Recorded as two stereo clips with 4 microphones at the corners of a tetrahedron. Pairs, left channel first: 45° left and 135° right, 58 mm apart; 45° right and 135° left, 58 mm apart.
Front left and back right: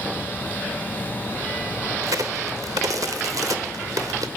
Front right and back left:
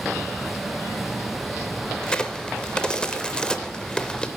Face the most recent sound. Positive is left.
turn(degrees=-120)